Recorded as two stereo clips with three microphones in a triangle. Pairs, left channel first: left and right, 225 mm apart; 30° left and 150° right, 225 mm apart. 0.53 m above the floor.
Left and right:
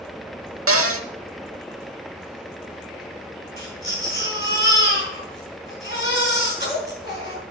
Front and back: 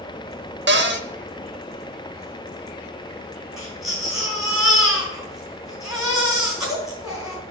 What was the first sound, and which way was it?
A cupboard door, 110° right.